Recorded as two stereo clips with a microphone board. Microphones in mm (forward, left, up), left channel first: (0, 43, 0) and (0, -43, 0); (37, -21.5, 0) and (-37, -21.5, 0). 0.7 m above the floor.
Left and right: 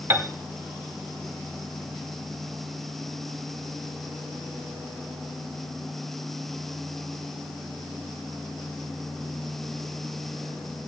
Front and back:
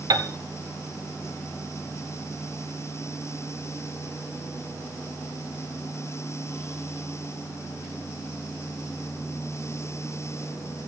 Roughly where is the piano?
Behind right.